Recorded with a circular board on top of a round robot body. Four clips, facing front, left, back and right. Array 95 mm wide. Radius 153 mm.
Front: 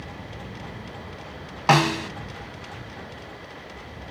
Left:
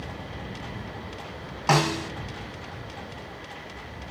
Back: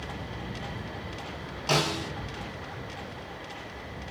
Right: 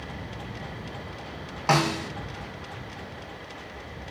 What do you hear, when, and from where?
1.7 s a snare drum: straight ahead, 1.1 m